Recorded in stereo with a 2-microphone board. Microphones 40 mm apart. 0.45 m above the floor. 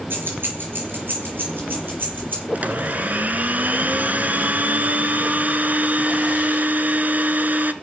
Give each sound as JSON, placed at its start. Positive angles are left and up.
{"t": 0.1, "sound": "keys jangling", "side_deg": -55, "distance_m": 4.5}
{"t": 2.5, "sound": "a blender", "side_deg": -40, "distance_m": 1.0}